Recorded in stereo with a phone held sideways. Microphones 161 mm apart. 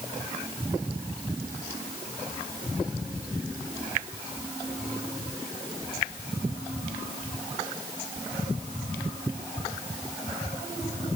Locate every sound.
Only background noise.